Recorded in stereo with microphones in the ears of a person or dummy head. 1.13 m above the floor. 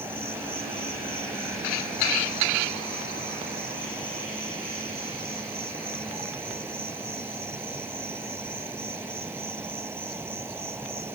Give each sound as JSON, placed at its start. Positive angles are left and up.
{"t": 0.0, "sound": "an insect", "side_deg": -10}